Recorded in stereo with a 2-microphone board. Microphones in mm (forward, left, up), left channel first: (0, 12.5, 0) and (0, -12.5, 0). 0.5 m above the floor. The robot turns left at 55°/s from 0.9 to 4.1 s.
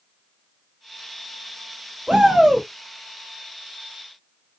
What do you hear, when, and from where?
2.1 s a shout: 145° right, 1.4 m; by 2.7 s straight behind, 1.4 m